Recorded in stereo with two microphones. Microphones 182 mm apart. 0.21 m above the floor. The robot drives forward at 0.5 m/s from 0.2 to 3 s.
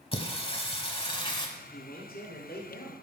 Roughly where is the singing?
Left.